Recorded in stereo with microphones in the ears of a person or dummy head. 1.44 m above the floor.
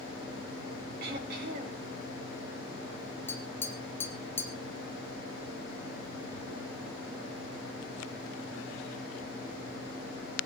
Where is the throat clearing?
60° right (ahead or behind), 5.5 m.